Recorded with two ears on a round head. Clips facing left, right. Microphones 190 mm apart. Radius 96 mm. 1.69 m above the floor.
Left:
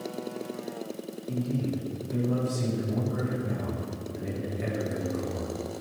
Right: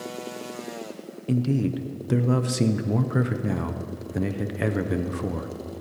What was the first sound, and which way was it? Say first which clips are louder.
A man speaking: right 6 dB; 75° right (ahead or behind).